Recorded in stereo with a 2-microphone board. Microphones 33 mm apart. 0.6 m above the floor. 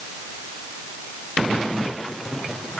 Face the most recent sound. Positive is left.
No sound to turn to.